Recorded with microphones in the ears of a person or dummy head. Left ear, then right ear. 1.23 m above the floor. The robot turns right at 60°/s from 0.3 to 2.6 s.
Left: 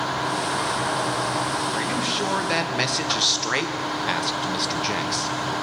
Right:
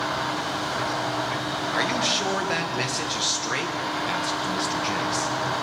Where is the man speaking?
30° right, 0.8 m; by 5.3 s 20° left, 0.8 m.